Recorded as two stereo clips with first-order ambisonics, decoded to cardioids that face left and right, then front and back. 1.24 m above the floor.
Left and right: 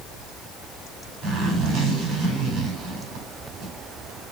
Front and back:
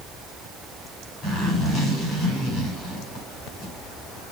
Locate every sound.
1.2 s a zipper: 55° right, 5.5 m